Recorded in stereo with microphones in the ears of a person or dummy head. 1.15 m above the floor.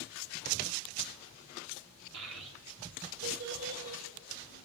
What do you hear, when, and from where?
2.1 s a child speaking: 60° right (ahead or behind), 2.5 m; by 4.5 s 70° right (ahead or behind), 5 m